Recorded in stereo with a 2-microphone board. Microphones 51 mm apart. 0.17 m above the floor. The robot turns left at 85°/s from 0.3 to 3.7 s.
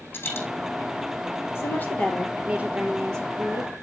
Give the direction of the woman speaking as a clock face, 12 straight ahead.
10 o'clock.